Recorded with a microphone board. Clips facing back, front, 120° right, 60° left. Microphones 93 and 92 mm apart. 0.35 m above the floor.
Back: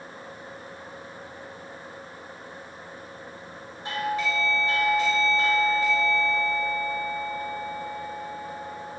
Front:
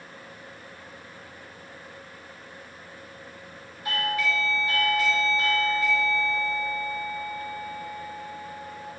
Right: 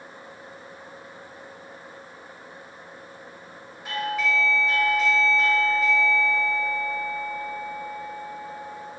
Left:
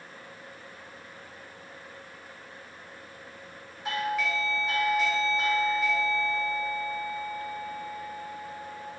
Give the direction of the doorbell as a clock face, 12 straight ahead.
7 o'clock.